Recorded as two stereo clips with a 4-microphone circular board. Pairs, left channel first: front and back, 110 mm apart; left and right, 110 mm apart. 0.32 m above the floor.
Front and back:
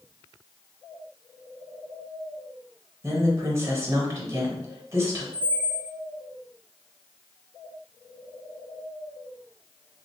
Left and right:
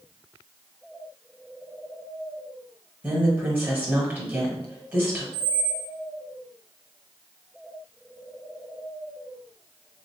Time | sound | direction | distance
3.0 | a woman speaking | 145° right | 1.2 m
5.3 | a squeak | 105° right | 0.7 m